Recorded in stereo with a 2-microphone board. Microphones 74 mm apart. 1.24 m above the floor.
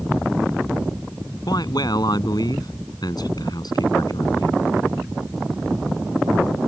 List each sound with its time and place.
1.5 s a man speaking: 65° left (ahead or behind)